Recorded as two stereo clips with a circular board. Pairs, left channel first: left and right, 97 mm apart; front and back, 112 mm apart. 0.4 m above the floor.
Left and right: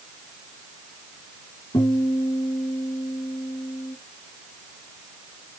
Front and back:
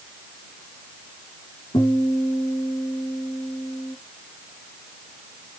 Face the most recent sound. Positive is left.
turn(degrees=50)